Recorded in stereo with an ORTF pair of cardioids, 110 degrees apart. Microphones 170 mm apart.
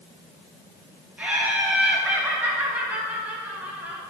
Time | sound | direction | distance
1.2 | laughter | 10° right | 3 m